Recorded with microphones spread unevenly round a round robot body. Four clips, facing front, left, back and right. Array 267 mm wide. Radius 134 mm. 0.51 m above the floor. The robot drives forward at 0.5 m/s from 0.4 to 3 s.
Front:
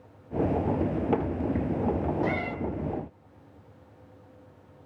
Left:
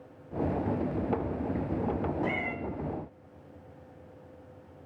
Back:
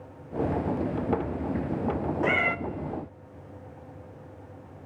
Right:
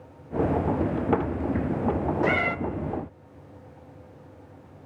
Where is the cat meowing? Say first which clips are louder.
Right 8 dB, back 3 dB; 110° right, 0.6 m; by 2.6 s 125° right, 0.7 m.